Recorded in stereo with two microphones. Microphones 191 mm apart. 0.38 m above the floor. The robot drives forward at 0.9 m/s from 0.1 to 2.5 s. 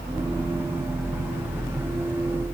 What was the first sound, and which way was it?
Only background noise.